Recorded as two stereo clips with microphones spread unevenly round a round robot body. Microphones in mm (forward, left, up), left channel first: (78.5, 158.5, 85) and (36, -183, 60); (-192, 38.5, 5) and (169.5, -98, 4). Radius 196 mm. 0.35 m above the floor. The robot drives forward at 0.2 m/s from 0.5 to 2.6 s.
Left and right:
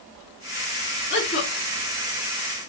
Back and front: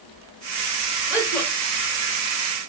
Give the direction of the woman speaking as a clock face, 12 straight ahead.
10 o'clock.